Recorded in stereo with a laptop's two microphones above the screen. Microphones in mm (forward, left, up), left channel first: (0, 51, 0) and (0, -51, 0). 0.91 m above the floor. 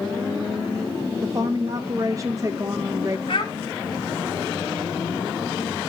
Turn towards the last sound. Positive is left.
turn(degrees=55)  # may be behind; listen again after turning